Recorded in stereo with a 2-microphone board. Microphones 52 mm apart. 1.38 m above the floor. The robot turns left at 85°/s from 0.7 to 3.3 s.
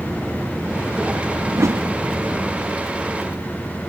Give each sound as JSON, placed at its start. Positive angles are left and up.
{"t": 1.5, "sound": "a whoosh", "azimuth_deg": -95, "distance_m": 1.1}